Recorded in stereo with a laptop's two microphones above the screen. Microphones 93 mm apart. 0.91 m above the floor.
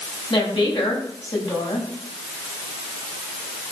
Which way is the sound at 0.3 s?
50° left (ahead or behind).